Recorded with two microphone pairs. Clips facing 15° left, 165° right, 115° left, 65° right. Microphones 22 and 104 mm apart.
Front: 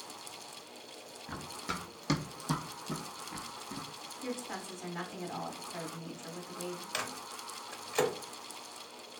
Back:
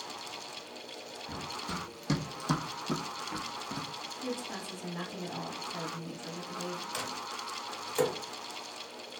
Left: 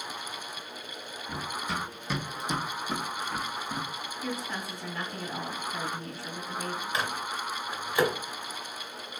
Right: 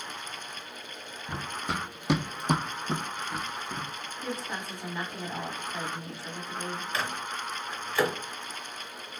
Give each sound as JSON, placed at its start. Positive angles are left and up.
{"t": 1.3, "sound": "running footsteps", "azimuth_deg": -25, "distance_m": 1.1}
{"t": 4.2, "sound": "a woman speaking", "azimuth_deg": -20, "distance_m": 1.4}
{"t": 6.9, "sound": "a microwave", "azimuth_deg": 60, "distance_m": 0.9}